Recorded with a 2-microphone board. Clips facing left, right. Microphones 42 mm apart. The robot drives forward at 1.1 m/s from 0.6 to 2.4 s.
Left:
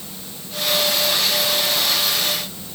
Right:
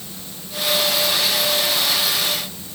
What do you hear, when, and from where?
Only background noise.